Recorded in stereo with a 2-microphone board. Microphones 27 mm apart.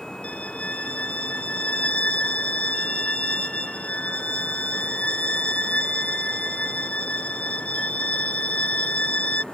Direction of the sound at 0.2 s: 55° left (ahead or behind).